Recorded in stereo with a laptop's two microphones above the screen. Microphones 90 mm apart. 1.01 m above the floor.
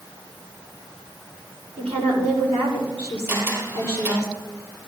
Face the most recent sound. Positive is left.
turn(degrees=-30)  # may be behind; listen again after turning